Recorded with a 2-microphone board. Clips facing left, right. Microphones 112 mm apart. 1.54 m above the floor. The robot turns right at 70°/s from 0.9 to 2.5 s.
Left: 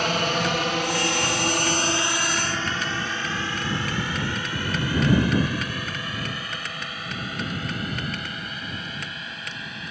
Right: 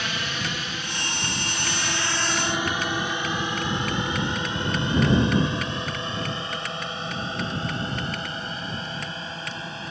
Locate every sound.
0.0 s a drone: 50° left (ahead or behind); by 9.9 s 30° right (ahead or behind)